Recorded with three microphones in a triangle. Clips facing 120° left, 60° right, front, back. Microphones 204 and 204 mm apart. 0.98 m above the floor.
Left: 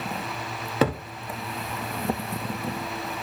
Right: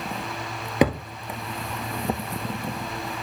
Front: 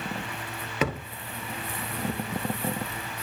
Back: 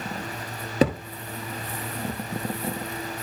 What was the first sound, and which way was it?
A thud, 135° right.